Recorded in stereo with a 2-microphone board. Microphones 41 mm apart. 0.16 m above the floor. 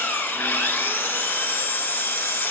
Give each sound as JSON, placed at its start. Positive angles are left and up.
{"t": 0.0, "sound": "an engine running", "side_deg": 55, "distance_m": 0.8}